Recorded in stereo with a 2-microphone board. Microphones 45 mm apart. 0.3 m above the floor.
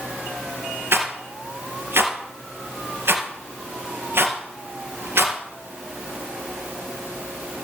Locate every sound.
0.9 s a rattle: 65° right (ahead or behind), 2.5 m